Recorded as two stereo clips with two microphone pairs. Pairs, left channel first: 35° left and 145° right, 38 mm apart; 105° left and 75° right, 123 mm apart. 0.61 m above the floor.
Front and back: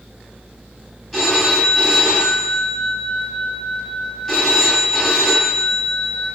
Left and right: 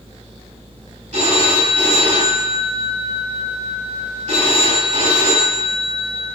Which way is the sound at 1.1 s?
55° right.